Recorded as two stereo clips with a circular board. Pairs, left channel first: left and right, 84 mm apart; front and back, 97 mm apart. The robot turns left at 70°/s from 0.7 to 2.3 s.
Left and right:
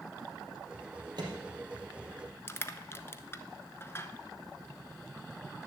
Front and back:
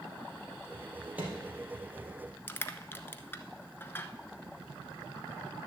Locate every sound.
1.2 s a microwave: 105° right, 3.5 m; by 1.4 s 125° right, 3.5 m
2.5 s crushing: 50° left, 0.7 m